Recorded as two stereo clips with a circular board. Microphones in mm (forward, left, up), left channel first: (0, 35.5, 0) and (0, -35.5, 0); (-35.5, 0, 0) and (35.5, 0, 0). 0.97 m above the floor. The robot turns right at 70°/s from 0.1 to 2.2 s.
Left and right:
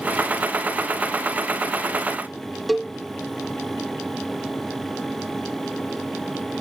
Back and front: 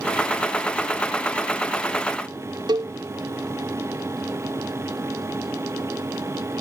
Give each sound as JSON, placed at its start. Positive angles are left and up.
{"t": 2.7, "sound": "a cowbell", "azimuth_deg": 0}